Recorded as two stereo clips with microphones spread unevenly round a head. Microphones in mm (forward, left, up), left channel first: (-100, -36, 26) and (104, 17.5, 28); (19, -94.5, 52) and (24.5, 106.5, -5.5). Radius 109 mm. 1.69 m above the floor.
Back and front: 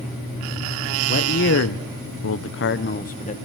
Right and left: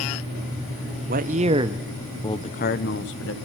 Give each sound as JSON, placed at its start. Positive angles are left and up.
{"t": 1.1, "sound": "a man speaking", "azimuth_deg": 145, "distance_m": 1.1}